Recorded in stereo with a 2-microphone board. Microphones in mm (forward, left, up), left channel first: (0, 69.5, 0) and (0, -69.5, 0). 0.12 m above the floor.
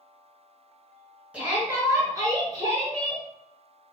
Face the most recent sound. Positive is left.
turn(degrees=-35)  # may be behind; listen again after turning